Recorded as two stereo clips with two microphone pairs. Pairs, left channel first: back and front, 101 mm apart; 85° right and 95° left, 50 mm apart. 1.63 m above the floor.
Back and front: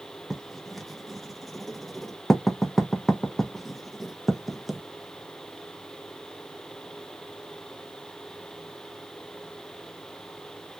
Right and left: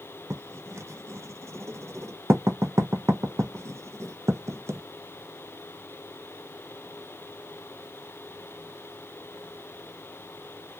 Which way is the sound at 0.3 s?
90° left.